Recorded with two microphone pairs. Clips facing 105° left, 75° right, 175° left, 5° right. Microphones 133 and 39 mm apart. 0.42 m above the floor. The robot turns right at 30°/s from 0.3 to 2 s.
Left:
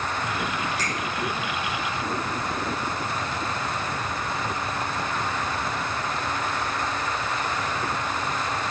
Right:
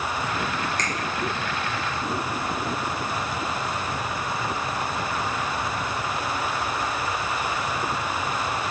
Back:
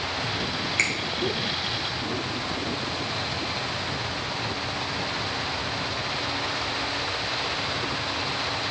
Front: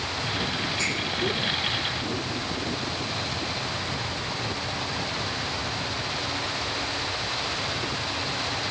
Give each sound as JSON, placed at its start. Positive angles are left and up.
{"t": 0.8, "sound": "a finger snap", "azimuth_deg": -170, "distance_m": 2.5}